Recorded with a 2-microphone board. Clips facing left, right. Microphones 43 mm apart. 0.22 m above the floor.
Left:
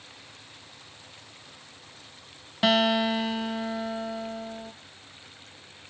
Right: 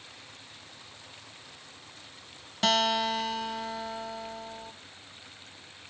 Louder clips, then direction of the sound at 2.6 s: Left 3 dB; 20° left (ahead or behind).